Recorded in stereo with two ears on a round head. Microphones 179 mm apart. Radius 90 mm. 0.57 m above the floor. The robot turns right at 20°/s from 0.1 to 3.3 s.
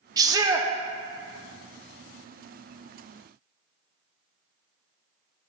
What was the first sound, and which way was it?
A shout, 20° right (ahead or behind).